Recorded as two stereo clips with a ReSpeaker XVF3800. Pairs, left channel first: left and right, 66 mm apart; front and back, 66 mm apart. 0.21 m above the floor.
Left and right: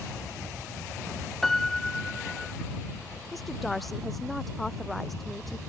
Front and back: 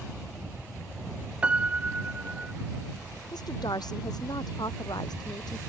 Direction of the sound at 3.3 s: 5° left.